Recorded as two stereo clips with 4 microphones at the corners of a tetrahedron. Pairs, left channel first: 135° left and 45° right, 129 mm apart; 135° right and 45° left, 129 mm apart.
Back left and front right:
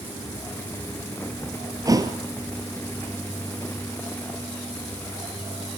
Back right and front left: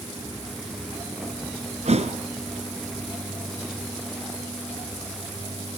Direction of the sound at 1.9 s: 15° left.